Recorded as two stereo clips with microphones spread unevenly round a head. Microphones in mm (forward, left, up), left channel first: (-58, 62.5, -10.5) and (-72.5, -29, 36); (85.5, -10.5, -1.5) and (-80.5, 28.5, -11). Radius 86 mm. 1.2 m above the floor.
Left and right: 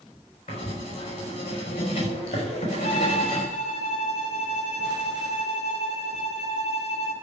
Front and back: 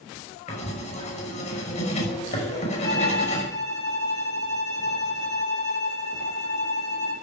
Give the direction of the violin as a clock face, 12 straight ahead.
10 o'clock.